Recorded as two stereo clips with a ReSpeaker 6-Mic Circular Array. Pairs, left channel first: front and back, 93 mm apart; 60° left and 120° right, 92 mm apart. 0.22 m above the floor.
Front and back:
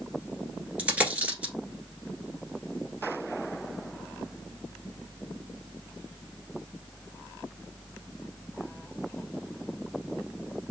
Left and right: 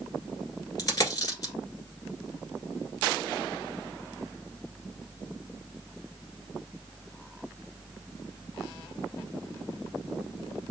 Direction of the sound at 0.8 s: 105° left.